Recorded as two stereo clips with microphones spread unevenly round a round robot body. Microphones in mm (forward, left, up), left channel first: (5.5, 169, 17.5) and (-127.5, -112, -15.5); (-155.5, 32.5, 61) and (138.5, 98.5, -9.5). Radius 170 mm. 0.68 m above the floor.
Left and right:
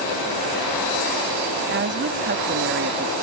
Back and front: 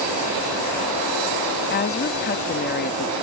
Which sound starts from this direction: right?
A woman speaking, at 1.7 s.